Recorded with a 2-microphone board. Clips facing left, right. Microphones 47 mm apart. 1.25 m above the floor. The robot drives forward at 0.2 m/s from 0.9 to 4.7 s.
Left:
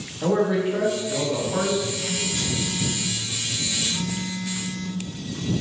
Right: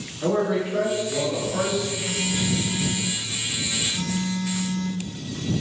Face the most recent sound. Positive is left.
turn(degrees=40)  # may be behind; listen again after turning